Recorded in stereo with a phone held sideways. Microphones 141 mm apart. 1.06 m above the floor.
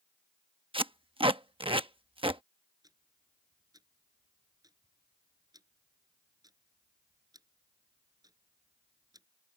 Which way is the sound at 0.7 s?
40° right (ahead or behind).